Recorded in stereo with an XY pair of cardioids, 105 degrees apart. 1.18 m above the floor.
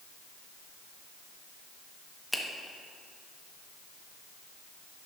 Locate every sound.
2.3 s a finger snap: 5° right, 1.1 m